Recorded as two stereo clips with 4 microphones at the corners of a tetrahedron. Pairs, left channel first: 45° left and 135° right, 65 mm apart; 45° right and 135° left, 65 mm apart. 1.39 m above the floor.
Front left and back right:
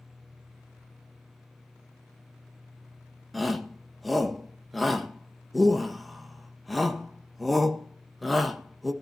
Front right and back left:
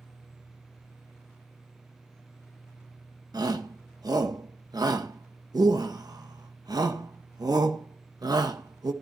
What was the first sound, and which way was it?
A shout, 135° left.